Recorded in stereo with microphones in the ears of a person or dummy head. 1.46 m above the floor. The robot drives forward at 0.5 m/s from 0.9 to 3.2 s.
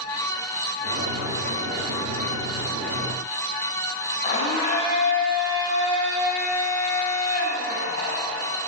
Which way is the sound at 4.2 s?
40° left (ahead or behind).